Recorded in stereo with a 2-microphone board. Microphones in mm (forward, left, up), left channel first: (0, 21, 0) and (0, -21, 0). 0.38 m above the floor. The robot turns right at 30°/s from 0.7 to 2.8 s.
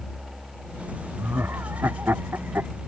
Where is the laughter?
70° right (ahead or behind); by 2.7 s 50° right (ahead or behind).